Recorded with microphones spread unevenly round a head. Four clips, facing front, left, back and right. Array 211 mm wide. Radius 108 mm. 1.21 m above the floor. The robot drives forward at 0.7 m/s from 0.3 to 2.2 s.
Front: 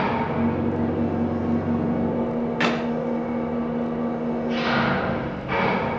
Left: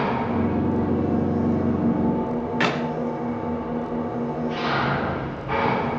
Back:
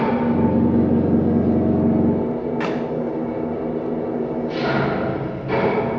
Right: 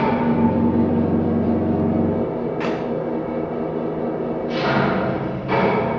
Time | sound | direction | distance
0.0 | an engine running | 120° right | 2 m
2.6 | a clap | 65° left | 3 m